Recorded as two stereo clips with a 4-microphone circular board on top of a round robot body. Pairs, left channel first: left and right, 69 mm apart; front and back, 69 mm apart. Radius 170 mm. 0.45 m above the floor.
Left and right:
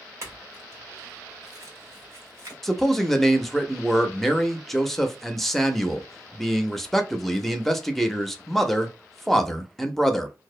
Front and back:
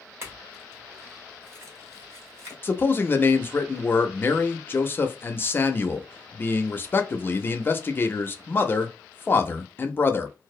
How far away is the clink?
About 1.2 m.